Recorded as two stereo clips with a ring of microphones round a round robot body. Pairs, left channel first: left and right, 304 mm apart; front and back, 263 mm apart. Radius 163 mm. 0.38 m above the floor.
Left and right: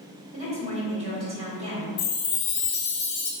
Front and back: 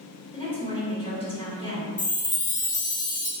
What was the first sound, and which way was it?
A woman speaking, 45° right.